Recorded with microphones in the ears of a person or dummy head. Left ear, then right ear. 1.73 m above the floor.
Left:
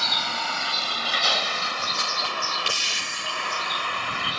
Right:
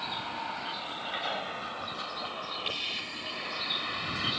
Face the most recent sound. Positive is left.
turn(degrees=35)  # may be behind; listen again after turning